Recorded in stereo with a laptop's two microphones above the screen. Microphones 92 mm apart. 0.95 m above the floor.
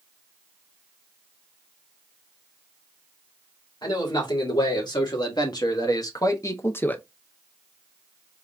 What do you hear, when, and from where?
3.8 s a man speaking: 55° left (ahead or behind), 2 m; by 7.0 s 15° left (ahead or behind), 0.5 m